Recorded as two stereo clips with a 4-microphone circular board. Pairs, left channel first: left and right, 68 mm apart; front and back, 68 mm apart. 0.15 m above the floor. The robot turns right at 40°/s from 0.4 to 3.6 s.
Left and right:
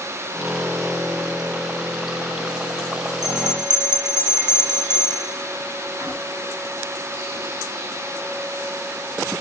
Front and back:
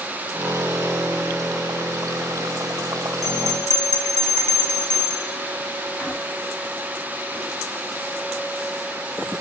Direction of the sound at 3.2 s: 90° right.